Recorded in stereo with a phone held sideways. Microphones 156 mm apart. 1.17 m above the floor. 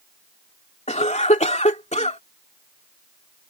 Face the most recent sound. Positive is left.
turn(degrees=45)  # may be behind; listen again after turning